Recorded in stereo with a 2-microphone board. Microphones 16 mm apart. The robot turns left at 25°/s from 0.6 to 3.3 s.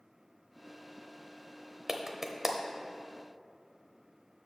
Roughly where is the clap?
Right.